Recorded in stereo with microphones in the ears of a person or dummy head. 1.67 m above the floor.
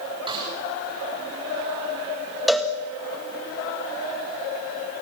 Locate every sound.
0.3 s a snare drum: 30° right (ahead or behind), 9 m
2.5 s a cowbell: centre (ahead or behind), 1.9 m